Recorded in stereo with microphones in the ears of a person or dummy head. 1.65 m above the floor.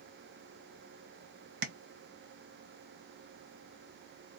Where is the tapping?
65° right (ahead or behind), 1.0 m.